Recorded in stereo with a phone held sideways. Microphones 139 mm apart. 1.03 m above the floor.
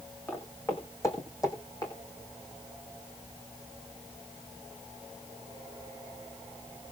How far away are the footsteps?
About 4 m.